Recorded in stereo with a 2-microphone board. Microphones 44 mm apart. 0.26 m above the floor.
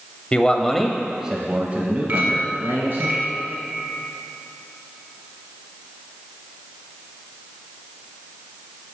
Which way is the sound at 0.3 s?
25° left (ahead or behind).